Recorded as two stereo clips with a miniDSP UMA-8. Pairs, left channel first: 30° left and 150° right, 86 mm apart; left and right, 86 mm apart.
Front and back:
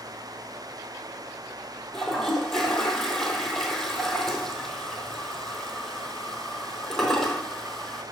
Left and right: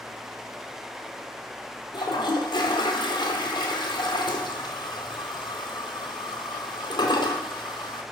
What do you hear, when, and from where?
1.9 s a toilet flushing: 115° left, 0.7 m